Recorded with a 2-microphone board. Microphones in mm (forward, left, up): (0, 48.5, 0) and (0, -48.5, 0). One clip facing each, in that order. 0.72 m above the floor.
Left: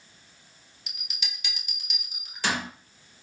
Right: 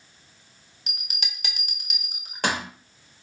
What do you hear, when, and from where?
0.9 s a bell: 60° right (ahead or behind), 0.8 m